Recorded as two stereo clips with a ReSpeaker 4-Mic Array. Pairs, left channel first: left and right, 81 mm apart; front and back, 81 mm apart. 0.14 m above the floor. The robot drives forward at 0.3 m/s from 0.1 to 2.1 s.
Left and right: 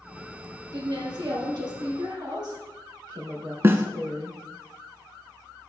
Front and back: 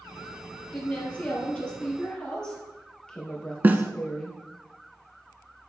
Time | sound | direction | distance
0.7 | a woman speaking | 70° right | 2.5 m
3.6 | a snare drum | 125° right | 0.5 m